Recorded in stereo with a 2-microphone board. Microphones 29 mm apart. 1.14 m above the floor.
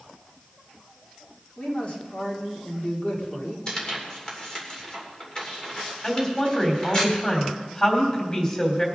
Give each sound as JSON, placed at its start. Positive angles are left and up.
{"t": 1.6, "sound": "a man speaking", "side_deg": 45, "distance_m": 2.5}
{"t": 3.7, "sound": "tearing paper", "side_deg": 30, "distance_m": 2.5}
{"t": 6.0, "sound": "a woman speaking", "side_deg": 30, "distance_m": 3.0}